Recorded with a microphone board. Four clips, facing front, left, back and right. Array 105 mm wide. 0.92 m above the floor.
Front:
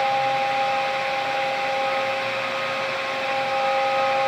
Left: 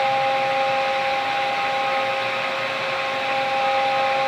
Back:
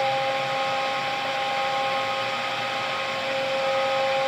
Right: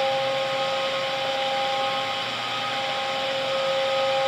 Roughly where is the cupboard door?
I don't hear a cupboard door.